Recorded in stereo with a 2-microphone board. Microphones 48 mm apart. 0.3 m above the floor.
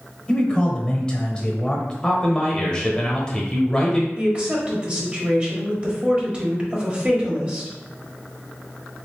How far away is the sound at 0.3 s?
About 0.9 m.